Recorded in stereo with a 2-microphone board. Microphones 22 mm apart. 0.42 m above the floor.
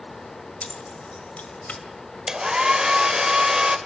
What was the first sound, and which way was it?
Keys jangling, 60° left (ahead or behind).